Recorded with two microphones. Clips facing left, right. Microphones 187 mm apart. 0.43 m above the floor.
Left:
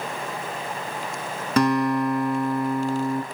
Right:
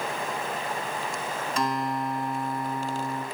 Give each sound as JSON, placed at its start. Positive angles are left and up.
{"t": 1.6, "sound": "a guitar", "side_deg": 70, "distance_m": 0.7}